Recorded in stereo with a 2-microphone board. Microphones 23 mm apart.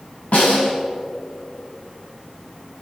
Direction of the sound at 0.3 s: 75° left (ahead or behind).